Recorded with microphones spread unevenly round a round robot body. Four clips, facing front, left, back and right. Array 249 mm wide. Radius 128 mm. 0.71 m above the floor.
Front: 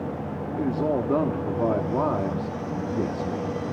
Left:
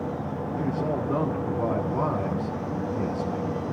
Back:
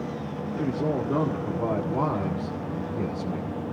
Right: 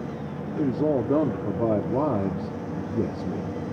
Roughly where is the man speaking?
Right.